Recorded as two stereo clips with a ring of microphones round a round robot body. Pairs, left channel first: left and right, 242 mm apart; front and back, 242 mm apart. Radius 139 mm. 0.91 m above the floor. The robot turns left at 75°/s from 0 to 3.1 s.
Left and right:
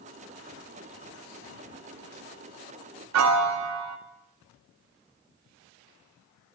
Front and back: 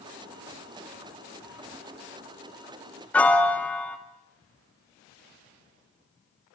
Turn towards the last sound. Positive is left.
turn(degrees=-85)